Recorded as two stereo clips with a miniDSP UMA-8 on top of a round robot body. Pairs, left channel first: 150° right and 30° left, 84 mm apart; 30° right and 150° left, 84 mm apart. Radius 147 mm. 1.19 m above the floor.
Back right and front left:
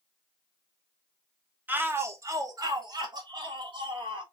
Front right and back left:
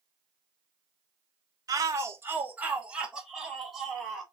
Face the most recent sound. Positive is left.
turn(degrees=60)